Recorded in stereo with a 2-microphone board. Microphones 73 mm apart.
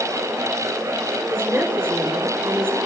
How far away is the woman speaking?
About 2.5 m.